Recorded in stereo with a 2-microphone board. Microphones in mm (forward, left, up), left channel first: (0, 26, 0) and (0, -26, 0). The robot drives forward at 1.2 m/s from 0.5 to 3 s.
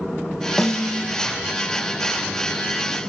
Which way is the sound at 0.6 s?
5° left (ahead or behind).